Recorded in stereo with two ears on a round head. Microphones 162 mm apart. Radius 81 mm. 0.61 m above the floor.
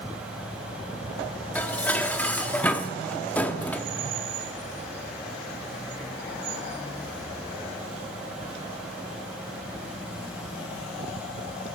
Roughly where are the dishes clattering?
Centre.